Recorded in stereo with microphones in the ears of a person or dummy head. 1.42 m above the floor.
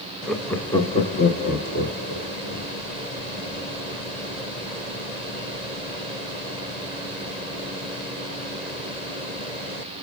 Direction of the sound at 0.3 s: Centre (ahead or behind).